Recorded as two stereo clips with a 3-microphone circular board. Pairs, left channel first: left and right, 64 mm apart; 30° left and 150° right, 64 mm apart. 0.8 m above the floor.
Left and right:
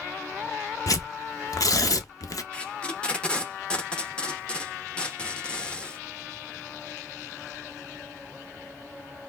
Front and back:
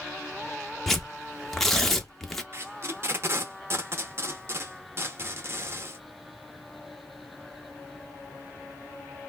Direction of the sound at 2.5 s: 165° left.